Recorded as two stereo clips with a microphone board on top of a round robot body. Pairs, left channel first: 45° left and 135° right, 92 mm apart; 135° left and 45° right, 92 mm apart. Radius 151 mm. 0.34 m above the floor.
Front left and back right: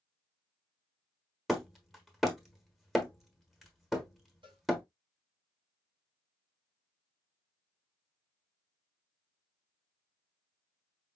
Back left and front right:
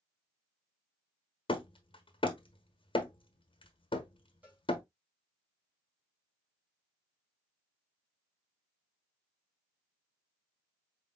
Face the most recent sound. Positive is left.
turn(degrees=-115)